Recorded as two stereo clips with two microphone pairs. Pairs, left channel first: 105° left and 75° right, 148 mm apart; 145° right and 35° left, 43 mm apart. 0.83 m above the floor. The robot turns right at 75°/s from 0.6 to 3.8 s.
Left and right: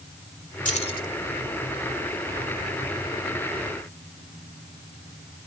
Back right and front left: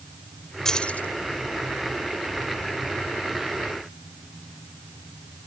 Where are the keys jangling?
135° left; by 1.1 s 170° left.